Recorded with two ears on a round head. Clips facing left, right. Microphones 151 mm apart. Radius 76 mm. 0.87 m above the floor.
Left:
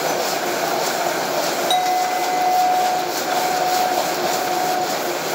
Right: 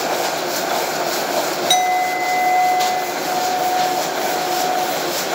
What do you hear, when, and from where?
1.7 s a clink: 25° right (ahead or behind), 1.1 m